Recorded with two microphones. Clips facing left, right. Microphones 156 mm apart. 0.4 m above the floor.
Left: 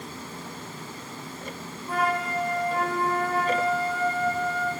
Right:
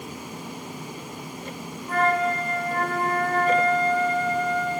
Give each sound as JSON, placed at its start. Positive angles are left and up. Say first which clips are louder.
{"t": 1.9, "sound": "a flute", "louder": "right 4 dB", "side_deg": 5, "distance_m": 3.0}